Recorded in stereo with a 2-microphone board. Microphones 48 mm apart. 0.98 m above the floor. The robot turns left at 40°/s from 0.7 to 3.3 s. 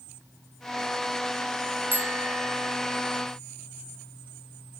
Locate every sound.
1.9 s a bicycle bell: 45° right; by 2.8 s 80° right